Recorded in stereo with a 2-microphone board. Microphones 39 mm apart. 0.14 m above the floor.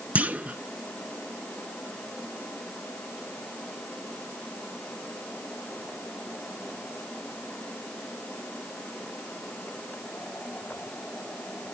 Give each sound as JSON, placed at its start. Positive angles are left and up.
{"t": 0.1, "sound": "a clunk", "side_deg": -40, "distance_m": 0.7}